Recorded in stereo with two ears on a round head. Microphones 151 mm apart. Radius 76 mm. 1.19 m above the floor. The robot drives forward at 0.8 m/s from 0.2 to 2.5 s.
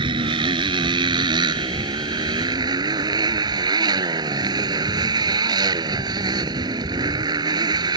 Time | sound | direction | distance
0.0 | a motorcycle | 30° right (ahead or behind) | ?